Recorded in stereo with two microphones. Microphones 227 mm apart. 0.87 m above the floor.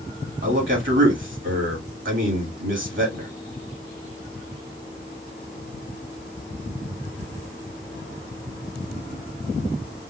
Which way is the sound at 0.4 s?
60° right (ahead or behind).